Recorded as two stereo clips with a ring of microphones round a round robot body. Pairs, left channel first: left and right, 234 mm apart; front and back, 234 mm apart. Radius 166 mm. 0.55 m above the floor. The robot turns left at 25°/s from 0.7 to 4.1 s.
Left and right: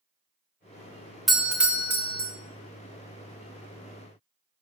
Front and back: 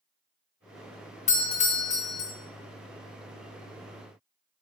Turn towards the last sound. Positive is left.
turn(degrees=-70)